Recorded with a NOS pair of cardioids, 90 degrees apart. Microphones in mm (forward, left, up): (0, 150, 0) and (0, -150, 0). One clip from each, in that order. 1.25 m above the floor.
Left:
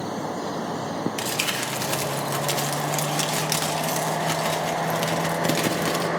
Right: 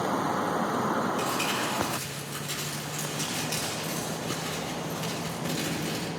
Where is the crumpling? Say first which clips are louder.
Left 2 dB; 70° left, 1.1 m.